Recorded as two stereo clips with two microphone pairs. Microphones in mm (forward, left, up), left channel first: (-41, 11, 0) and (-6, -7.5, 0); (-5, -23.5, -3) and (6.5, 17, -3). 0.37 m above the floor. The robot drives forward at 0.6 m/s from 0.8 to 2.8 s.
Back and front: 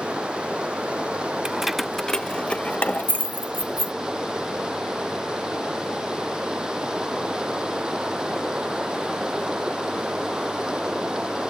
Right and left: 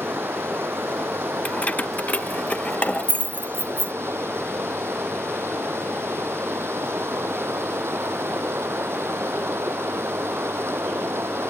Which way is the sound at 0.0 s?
40° left.